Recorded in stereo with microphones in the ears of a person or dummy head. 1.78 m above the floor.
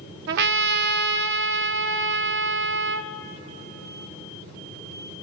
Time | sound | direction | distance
0.3 | a trumpet | 60° right (ahead or behind) | 0.5 m